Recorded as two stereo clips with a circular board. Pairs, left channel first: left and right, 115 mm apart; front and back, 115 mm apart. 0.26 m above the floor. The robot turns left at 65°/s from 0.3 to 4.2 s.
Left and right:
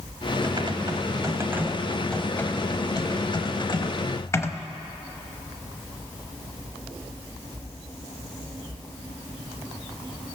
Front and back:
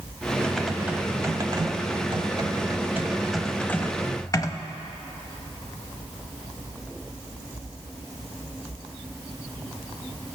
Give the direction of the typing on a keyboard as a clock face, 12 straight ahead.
3 o'clock.